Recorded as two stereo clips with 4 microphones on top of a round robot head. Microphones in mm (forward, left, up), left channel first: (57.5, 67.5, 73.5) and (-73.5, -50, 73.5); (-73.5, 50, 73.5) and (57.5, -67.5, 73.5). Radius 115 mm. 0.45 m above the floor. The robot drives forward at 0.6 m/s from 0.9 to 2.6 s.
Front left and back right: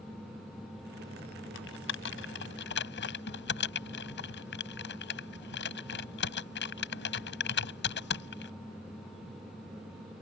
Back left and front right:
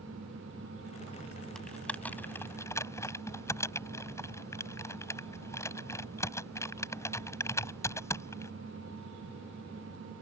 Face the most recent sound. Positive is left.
turn(degrees=65)